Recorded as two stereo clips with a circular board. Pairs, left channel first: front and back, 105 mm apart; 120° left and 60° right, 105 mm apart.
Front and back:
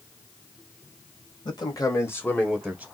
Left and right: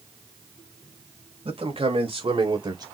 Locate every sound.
1.4 s a man speaking: 40° right, 2 m; by 2.8 s 100° right, 1.5 m